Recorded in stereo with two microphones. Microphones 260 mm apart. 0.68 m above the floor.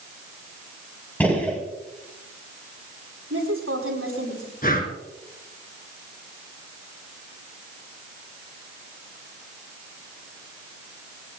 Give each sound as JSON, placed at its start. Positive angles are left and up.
{"t": 1.2, "sound": "a gunshot", "side_deg": 5, "distance_m": 4.0}
{"t": 3.3, "sound": "a woman speaking", "side_deg": -60, "distance_m": 7.5}
{"t": 4.6, "sound": "breathing", "side_deg": 35, "distance_m": 2.0}